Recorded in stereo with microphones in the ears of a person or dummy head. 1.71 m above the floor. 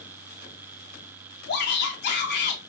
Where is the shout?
50° left (ahead or behind), 1.1 m.